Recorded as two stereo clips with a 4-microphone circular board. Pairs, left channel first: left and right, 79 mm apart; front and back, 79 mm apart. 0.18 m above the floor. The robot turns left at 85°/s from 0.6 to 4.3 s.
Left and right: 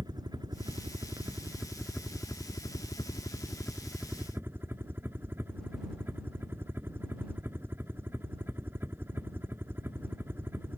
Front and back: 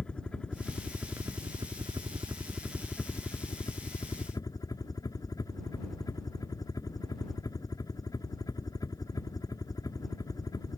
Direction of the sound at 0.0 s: 75° right.